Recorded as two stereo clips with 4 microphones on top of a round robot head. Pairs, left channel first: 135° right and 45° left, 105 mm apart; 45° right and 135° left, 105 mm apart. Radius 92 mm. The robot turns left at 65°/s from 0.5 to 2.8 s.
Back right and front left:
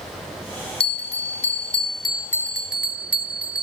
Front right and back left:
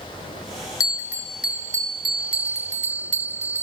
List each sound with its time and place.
0.8 s a bell: 105° right, 1.3 m; by 3.6 s 125° left, 1.3 m